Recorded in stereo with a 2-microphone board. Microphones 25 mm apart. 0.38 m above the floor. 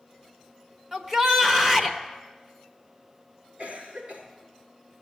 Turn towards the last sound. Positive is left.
turn(degrees=-50)  # may be behind; listen again after turning